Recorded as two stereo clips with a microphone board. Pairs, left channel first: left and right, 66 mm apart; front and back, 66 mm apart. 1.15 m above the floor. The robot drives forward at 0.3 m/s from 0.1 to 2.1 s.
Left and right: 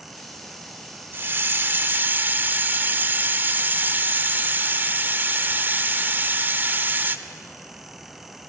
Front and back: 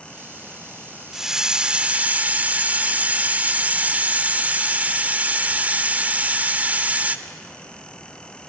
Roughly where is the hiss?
Right.